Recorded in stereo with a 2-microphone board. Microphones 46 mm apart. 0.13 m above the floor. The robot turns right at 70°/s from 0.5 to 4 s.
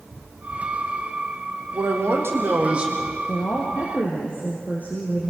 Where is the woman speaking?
80° left, 3 m; by 5.3 s 130° left, 3 m.